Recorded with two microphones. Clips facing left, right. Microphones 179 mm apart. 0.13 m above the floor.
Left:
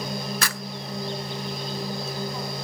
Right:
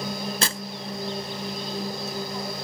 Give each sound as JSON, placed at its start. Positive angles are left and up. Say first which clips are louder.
{"t": 0.4, "sound": "tearing paper", "louder": "right 2 dB", "side_deg": -30}